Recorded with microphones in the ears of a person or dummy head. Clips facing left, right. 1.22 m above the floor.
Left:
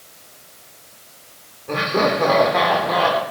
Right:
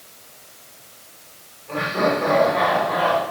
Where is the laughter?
60° left (ahead or behind), 4 m.